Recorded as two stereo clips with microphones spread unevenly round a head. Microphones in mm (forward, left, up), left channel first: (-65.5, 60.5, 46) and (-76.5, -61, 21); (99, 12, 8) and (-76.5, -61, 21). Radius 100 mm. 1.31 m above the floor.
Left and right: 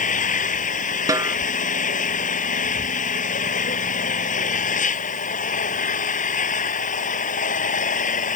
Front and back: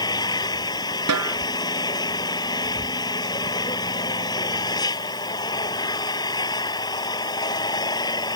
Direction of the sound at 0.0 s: 95° left.